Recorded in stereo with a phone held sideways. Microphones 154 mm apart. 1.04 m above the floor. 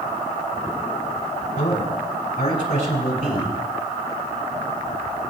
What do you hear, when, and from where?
1.6 s a man speaking: 80° left, 5 m